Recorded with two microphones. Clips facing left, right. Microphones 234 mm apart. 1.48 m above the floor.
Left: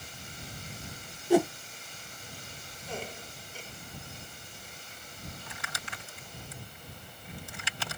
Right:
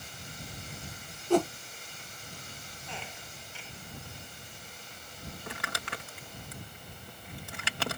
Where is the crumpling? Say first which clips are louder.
Right 5 dB; 65° right (ahead or behind).